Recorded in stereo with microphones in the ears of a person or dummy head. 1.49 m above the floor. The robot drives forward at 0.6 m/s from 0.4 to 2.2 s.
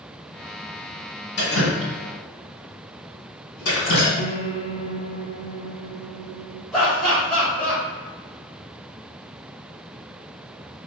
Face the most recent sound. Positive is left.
turn(degrees=-5)  # may be behind; listen again after turning